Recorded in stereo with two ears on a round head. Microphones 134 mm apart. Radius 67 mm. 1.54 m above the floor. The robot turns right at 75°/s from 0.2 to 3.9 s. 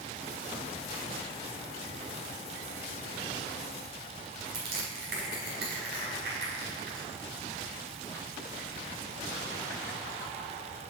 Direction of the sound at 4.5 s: 75° right (ahead or behind).